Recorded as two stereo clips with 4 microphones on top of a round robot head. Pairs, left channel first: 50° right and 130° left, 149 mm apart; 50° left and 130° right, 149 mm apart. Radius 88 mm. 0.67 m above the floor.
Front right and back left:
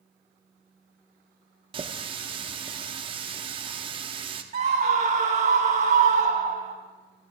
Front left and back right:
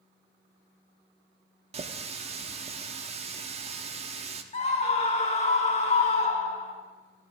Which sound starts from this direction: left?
A scream, at 4.5 s.